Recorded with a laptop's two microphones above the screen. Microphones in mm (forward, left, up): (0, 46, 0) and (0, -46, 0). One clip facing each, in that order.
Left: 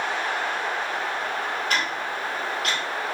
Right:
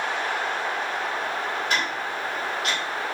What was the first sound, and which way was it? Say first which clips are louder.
Ticking: even; 25° right (ahead or behind).